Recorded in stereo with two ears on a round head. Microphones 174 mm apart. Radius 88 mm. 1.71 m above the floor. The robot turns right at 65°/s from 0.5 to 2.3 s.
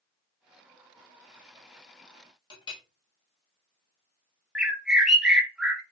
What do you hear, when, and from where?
2.5 s a clink: 25° left (ahead or behind), 1.0 m
4.5 s a bird: centre (ahead or behind), 0.6 m